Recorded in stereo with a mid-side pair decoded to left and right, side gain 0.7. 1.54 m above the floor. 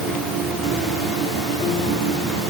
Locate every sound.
Only background noise.